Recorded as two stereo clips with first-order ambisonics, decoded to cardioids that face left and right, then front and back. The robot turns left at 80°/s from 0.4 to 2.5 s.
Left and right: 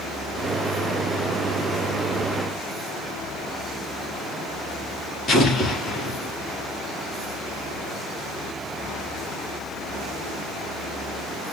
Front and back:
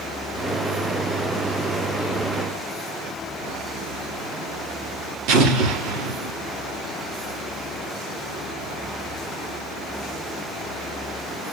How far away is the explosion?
About 1.6 m.